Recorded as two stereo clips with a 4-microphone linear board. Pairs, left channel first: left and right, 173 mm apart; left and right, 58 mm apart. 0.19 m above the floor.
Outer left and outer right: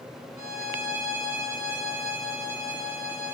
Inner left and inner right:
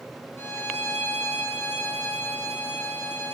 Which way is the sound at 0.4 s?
50° left (ahead or behind).